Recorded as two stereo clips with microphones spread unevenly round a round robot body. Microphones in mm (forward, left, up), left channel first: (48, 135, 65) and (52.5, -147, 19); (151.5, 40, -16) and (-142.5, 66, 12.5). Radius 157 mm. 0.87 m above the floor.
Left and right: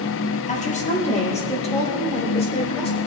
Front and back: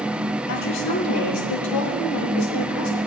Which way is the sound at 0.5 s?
25° left.